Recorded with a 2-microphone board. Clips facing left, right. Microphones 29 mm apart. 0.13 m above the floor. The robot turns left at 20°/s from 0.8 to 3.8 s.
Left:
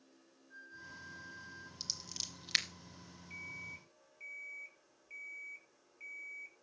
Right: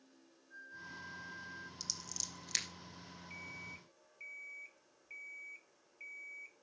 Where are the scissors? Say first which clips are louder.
Left 4 dB; 35° left (ahead or behind), 2.5 m; by 2.6 s 45° left (ahead or behind), 2.5 m.